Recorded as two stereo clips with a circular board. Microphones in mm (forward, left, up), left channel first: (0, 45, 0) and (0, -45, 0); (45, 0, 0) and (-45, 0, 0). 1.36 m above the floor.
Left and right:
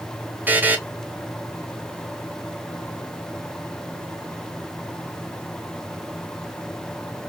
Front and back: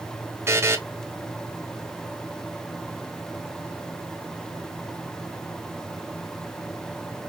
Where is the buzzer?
145° right, 0.6 m.